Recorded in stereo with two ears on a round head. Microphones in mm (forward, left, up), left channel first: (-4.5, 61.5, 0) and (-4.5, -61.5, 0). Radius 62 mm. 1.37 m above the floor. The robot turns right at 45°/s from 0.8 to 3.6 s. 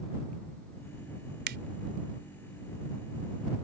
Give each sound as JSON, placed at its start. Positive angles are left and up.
{"t": 1.5, "sound": "a finger snap", "side_deg": -80}